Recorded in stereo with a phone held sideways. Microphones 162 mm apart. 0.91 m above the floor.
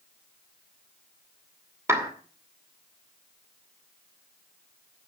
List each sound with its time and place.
1.9 s a clap: 15° right (ahead or behind), 2.5 m